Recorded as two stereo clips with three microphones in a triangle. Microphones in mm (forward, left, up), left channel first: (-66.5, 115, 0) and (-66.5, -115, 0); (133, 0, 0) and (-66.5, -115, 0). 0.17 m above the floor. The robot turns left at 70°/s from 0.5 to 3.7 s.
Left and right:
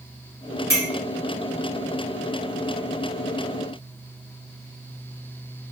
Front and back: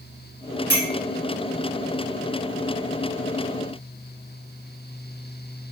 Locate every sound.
0.7 s a clink: 15° left, 1.8 m; by 0.9 s 5° left, 1.8 m